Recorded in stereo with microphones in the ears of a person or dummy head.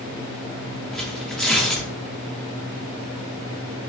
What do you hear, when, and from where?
0.9 s tearing paper: centre (ahead or behind), 0.7 m